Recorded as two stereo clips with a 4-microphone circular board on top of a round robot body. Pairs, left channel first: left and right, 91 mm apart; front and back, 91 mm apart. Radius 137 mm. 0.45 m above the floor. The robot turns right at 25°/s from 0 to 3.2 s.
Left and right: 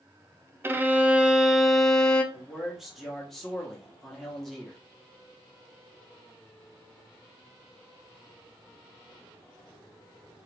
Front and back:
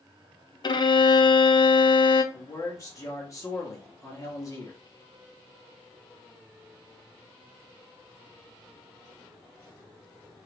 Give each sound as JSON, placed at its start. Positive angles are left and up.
{"t": 0.6, "sound": "a violin", "azimuth_deg": -30, "distance_m": 0.6}
{"t": 2.3, "sound": "a man speaking", "azimuth_deg": -15, "distance_m": 1.0}